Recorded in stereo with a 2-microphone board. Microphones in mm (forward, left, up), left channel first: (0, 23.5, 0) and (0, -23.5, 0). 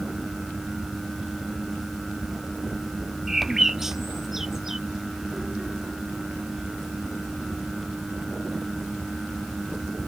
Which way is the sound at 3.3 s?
10° right (ahead or behind).